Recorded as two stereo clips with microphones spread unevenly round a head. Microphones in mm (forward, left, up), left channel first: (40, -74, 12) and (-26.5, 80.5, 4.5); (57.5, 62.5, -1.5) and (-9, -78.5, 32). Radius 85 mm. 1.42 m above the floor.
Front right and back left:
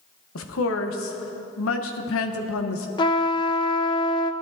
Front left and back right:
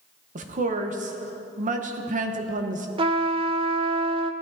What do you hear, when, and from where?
0.3 s a woman speaking: 75° right, 1.4 m
3.0 s a trumpet: 115° right, 0.6 m